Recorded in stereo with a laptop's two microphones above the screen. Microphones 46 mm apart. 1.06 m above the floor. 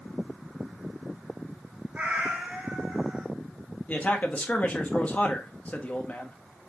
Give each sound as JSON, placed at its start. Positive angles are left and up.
{"t": 1.9, "sound": "a cat meowing", "side_deg": -30, "distance_m": 2.0}
{"t": 3.9, "sound": "a man speaking", "side_deg": 30, "distance_m": 1.2}